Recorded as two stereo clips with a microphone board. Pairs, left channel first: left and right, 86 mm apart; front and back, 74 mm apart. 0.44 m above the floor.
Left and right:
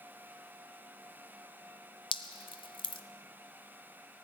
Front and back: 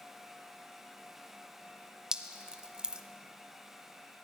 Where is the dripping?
100° left, 1.0 m.